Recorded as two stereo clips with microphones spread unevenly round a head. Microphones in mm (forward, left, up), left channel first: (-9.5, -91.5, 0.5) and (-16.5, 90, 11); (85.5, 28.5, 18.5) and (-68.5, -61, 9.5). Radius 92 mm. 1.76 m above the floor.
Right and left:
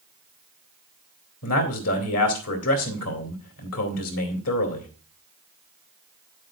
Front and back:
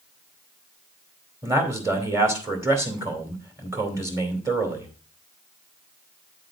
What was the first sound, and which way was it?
A man speaking, 75° right.